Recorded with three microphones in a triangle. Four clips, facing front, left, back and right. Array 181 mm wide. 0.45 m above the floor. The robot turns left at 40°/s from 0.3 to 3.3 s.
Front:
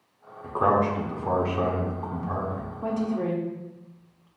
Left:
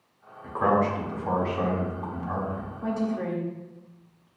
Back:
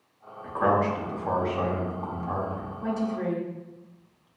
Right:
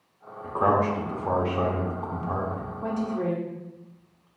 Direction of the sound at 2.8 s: 25° right.